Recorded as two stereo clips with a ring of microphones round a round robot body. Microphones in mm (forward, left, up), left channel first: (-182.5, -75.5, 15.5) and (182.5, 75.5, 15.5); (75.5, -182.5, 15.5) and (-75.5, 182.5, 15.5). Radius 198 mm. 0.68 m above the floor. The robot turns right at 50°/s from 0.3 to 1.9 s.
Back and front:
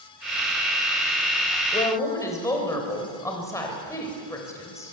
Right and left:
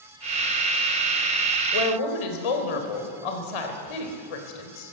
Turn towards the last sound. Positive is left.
turn(degrees=-75)